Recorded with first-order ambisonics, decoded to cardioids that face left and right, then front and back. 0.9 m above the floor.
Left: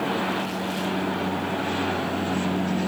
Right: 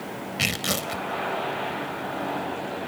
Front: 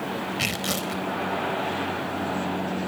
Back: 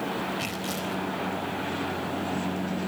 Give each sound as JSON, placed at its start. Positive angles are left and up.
{"t": 0.4, "sound": "tearing paper", "azimuth_deg": -60, "distance_m": 4.0}